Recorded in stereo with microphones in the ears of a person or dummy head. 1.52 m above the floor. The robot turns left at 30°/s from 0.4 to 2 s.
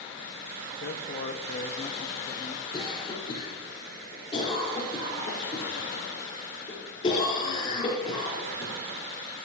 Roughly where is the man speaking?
Ahead left.